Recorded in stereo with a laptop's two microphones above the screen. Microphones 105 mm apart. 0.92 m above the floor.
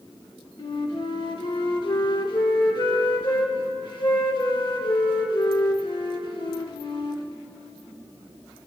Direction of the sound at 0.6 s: 50° left (ahead or behind).